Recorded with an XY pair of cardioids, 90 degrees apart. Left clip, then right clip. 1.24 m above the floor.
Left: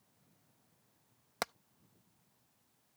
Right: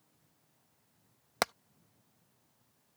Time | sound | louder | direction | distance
1.4 | hammering | right 7 dB | 45° right | ?